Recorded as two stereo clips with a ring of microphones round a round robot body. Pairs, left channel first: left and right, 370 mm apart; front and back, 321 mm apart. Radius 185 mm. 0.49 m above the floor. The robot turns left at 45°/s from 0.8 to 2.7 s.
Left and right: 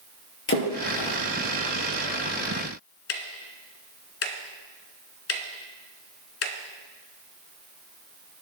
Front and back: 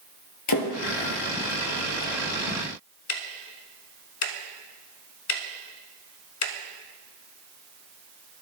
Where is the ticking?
35° left, 0.9 m.